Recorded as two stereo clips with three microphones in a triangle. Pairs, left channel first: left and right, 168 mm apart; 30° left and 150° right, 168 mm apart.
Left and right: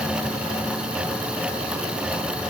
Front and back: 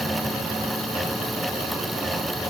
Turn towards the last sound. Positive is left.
No sound to turn to.